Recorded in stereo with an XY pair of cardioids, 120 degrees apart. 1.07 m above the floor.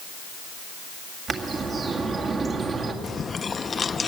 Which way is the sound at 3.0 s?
30° left.